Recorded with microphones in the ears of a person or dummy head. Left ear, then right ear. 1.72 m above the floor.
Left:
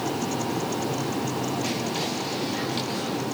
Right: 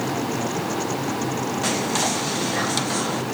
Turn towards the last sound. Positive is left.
turn(degrees=-40)  # may be behind; listen again after turning